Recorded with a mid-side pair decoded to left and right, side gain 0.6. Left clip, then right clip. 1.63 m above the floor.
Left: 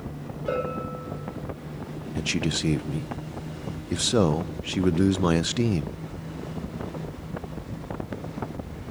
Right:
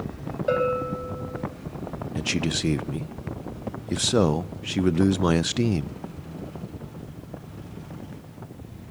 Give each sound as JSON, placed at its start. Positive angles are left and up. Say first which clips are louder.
{"t": 0.5, "sound": "a bell", "louder": "right 5 dB", "azimuth_deg": -25, "distance_m": 7.5}
{"t": 2.1, "sound": "a man speaking", "louder": "even", "azimuth_deg": -5, "distance_m": 0.6}